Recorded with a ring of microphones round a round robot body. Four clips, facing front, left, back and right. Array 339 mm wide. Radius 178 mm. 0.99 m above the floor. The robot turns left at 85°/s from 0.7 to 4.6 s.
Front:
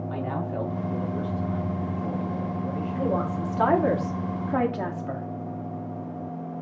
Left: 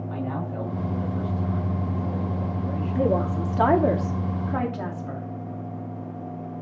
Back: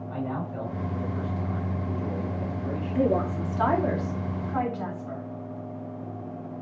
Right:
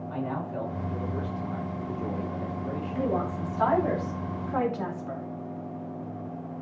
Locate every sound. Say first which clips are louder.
0.1 s a man speaking: left 1 dB, even; straight ahead, 3.5 m; by 3.1 s 155° left, 3.5 m
3.0 s a woman speaking: left 6 dB, back 3 dB; 145° left, 2.5 m; by 5.2 s 5° left, 2.5 m